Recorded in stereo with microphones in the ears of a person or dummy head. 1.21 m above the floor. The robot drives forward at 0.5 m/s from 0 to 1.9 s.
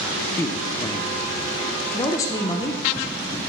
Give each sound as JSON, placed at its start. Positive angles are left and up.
{"t": 0.4, "sound": "a man speaking", "side_deg": 15, "distance_m": 0.6}